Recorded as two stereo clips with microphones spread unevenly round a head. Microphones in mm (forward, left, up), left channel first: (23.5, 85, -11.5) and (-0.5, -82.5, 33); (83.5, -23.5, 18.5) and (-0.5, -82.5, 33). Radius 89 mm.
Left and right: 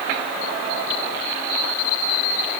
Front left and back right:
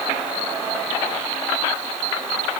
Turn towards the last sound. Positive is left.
No sound to turn to.